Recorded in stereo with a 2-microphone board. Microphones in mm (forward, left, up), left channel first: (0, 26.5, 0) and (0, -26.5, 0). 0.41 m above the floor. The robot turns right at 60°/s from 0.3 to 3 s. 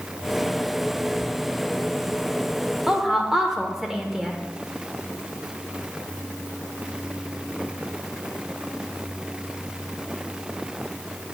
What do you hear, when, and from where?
2.9 s a woman speaking: 10° right (ahead or behind), 0.8 m